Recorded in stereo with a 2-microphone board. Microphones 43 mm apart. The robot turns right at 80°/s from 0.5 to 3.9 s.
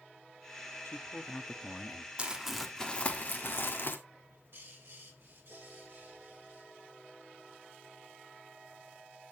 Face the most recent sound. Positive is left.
turn(degrees=-65)  # may be behind; listen again after turning